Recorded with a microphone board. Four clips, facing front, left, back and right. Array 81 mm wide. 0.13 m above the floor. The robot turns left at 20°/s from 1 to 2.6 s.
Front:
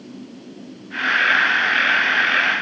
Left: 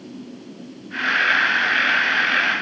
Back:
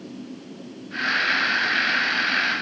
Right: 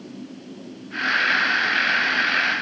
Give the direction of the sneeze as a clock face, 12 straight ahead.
No sneeze in this recording.